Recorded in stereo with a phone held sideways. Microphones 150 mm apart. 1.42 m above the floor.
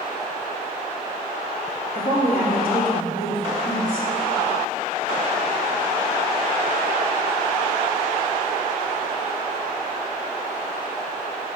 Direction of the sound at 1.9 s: 85° left.